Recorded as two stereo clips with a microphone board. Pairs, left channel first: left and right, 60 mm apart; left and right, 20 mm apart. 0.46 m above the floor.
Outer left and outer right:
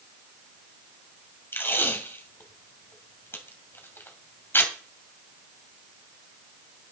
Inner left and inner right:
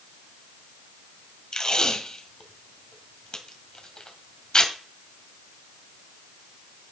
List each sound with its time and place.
1.5 s tape being pulled: 35° left (ahead or behind), 2.5 m